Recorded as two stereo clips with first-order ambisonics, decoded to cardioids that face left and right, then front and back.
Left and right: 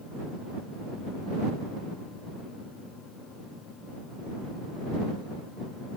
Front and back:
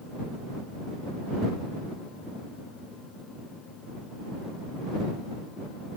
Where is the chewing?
I don't hear chewing.